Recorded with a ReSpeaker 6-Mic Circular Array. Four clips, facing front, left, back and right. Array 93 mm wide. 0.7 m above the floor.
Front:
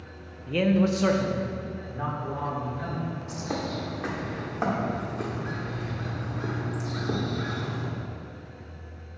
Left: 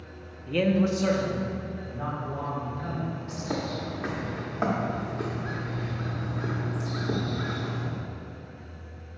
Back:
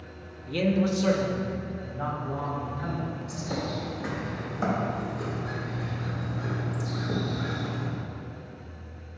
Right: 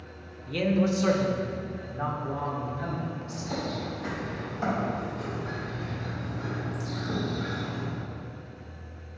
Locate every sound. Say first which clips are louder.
0.5 s a man speaking: left 1 dB, front 2 dB; 60° left, 0.5 m; by 3.1 s 25° right, 2.5 m
3.3 s a bird: left 1 dB, front 2 dB; 40° left, 1.2 m